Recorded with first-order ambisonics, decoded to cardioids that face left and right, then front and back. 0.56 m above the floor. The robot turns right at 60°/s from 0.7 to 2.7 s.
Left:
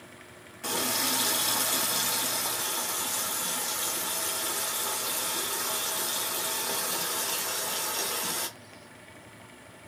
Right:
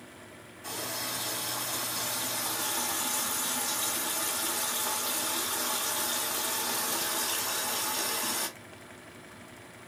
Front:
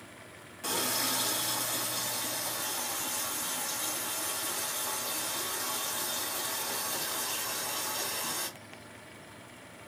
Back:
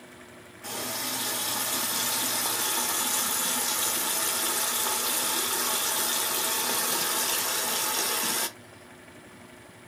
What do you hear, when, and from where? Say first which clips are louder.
0.6 s a running tap: left 7 dB, front 2 dB; 55° left, 0.9 m; by 8.5 s 175° left, 0.9 m